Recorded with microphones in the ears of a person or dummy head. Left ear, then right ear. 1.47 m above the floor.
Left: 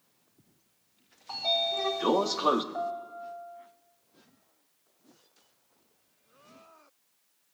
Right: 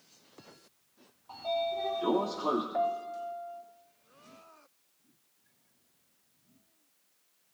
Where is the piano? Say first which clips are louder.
Right 3 dB; 80° right, 0.8 m.